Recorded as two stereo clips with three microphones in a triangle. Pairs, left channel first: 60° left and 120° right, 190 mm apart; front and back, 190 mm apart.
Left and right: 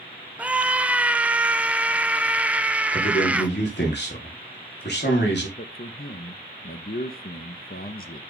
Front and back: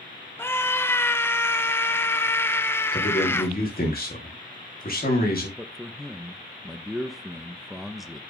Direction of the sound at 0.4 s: 50° right.